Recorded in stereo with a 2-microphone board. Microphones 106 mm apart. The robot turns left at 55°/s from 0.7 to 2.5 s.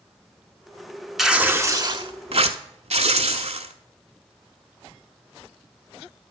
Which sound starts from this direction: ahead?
Tearing paper, at 1.2 s.